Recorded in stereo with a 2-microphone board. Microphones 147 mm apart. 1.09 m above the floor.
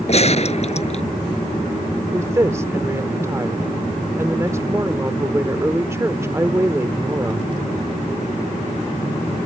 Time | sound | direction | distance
0.1 | a gunshot | 45° left (ahead or behind) | ?
2.1 | a woman speaking | 20° right (ahead or behind) | ?